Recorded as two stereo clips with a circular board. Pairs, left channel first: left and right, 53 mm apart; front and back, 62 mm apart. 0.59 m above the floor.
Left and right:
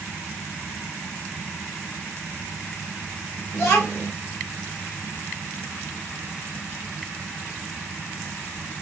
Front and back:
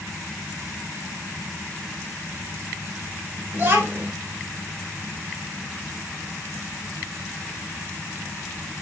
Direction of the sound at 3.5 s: 130° left.